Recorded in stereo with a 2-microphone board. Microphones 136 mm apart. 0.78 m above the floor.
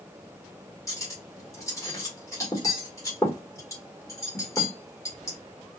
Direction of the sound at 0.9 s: 20° left (ahead or behind).